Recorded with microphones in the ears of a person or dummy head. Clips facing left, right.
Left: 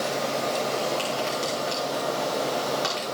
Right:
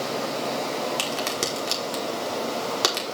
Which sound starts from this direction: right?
A crack, at 1.0 s.